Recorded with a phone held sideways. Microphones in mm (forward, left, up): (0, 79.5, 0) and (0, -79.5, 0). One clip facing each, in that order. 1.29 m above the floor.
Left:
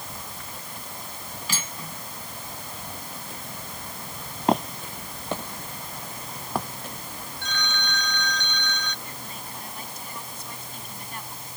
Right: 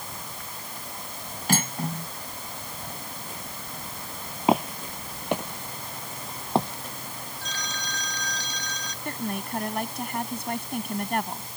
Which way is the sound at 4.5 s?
5° right (ahead or behind).